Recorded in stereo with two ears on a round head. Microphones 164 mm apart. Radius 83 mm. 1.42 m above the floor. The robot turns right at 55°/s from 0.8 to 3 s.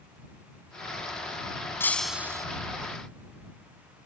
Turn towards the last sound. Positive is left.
turn(degrees=-130)